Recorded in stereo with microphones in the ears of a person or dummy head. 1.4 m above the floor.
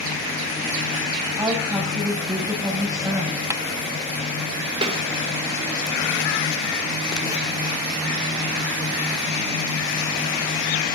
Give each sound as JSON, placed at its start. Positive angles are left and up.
{"t": 1.4, "sound": "a woman speaking", "side_deg": -15, "distance_m": 7.5}
{"t": 3.5, "sound": "tapping", "side_deg": -10, "distance_m": 0.6}
{"t": 4.8, "sound": "a snare drum", "side_deg": -30, "distance_m": 3.0}